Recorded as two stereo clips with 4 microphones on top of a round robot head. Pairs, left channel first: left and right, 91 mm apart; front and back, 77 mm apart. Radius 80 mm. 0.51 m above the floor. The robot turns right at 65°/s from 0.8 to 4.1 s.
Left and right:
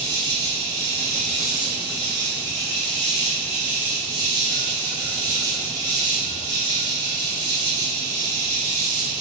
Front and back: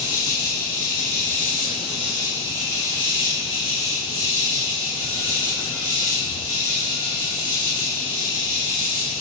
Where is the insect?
25° left, 1.4 m; by 9.2 s 120° right, 1.4 m.